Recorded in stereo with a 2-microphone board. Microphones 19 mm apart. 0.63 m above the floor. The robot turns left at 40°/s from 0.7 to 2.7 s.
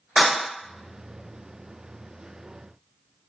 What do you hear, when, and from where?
0.2 s breaking glass: 70° right (ahead or behind), 1.7 m